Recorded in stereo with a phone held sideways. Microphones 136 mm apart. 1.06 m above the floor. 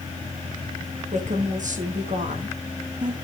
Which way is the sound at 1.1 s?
65° right (ahead or behind).